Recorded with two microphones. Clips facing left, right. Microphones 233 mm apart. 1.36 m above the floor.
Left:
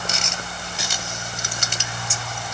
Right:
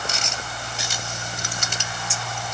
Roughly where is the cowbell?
I don't hear a cowbell.